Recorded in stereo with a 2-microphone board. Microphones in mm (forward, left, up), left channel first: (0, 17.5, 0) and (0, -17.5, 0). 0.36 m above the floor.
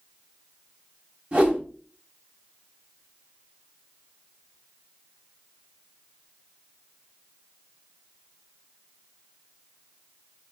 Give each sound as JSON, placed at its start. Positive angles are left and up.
{"t": 1.3, "sound": "a whoosh", "side_deg": -30, "distance_m": 3.0}